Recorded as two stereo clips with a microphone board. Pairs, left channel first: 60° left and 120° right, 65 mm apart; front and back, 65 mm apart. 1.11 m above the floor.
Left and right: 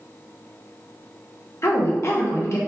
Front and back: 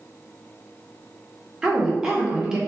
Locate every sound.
1.6 s a woman speaking: 100° left, 0.7 m